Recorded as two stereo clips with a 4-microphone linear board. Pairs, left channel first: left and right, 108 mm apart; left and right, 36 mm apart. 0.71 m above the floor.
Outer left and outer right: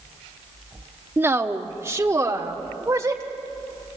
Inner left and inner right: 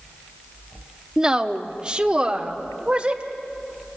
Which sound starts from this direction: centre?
A woman speaking, at 1.2 s.